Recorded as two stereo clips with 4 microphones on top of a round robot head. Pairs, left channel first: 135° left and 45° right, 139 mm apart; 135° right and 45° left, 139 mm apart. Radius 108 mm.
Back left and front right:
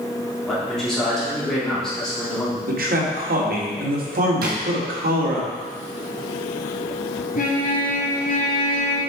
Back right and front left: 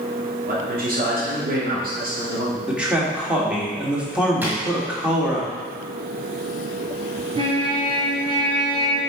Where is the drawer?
30° right, 1.8 m.